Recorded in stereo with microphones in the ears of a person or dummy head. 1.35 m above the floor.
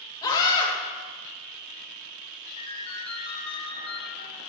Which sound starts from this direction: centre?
A scream, at 0.2 s.